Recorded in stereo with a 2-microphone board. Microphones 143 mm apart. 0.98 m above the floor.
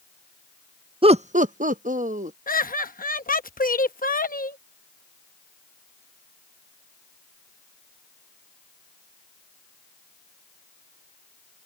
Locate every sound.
1.0 s laughter: 40° right (ahead or behind); by 2.4 s 60° right (ahead or behind)
2.5 s laughter: 80° left